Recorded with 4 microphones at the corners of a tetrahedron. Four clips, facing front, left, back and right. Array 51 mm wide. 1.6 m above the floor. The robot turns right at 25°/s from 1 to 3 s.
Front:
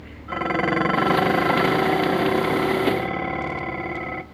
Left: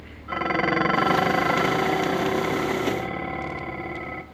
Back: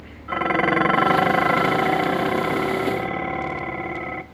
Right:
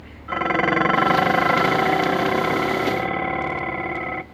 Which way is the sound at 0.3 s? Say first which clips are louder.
Right 3 dB, back 2 dB; 160° right.